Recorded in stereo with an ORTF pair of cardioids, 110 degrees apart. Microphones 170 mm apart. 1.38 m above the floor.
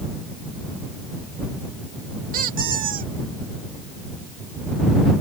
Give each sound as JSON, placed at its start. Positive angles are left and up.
{"t": 2.3, "sound": "a squeak", "azimuth_deg": -55}